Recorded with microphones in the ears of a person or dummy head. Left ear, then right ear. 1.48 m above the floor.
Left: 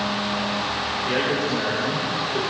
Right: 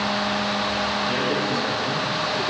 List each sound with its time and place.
1.1 s a man speaking: 65° left (ahead or behind), 7.5 m